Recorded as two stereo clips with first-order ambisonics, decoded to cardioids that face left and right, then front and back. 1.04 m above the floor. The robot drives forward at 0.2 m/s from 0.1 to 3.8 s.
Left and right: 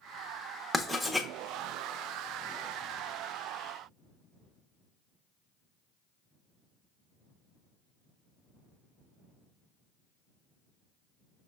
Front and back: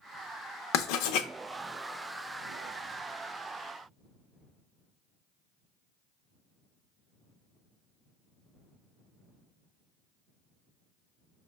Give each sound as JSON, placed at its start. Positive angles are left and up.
{"t": 0.7, "sound": "writing", "azimuth_deg": 0, "distance_m": 0.6}